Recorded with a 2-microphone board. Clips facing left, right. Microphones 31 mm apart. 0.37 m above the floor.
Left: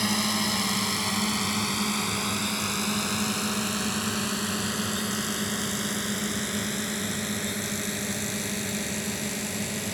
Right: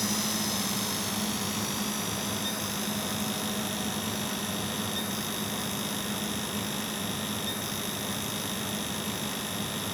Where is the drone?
40° left (ahead or behind); by 9.9 s 80° left.